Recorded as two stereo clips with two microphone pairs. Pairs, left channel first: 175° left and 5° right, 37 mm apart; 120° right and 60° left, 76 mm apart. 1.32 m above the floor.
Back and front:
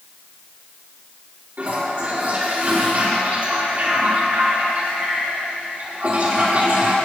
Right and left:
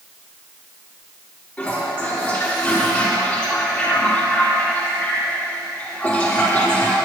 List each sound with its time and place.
1.6 s a toilet flushing: 45° right, 4.5 m